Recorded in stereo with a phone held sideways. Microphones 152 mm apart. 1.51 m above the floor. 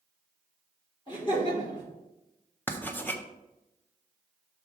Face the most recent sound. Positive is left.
turn(degrees=10)  # may be behind; listen again after turning